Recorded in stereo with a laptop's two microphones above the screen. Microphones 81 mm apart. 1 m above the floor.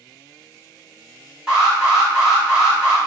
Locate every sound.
1.5 s an alarm: 10° right (ahead or behind), 1.4 m